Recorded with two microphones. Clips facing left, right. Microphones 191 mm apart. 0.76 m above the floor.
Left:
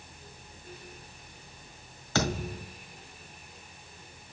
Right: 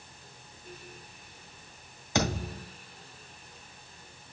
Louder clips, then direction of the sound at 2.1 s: Even; 15° right (ahead or behind).